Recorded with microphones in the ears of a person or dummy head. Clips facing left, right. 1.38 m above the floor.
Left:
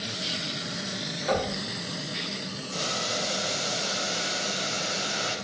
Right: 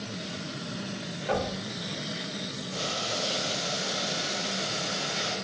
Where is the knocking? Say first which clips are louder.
Left 2 dB; 85° left, 1.2 m.